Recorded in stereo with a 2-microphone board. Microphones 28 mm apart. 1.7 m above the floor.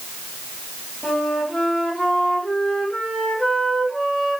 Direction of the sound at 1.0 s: 25° left (ahead or behind).